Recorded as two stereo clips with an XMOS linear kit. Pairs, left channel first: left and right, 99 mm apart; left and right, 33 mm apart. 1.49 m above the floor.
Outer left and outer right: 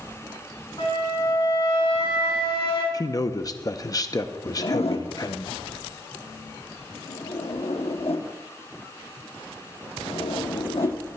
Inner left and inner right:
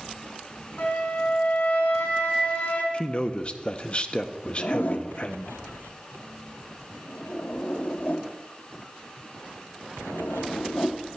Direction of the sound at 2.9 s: 40° left (ahead or behind).